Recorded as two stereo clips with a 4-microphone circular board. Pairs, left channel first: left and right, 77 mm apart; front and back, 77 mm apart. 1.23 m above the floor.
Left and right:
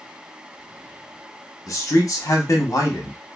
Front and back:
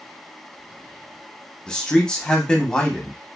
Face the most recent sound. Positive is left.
turn(degrees=75)